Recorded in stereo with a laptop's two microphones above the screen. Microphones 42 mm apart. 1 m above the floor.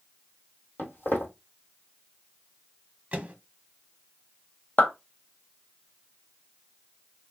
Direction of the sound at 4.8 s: 50° left (ahead or behind).